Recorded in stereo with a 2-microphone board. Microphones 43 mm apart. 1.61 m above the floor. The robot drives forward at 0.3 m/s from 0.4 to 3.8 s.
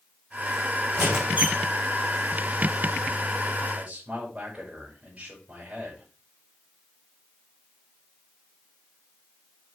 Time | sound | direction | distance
0.9 | a squeak | 35° right (ahead or behind) | 4 m
3.7 | a man speaking | 30° right (ahead or behind) | 5.5 m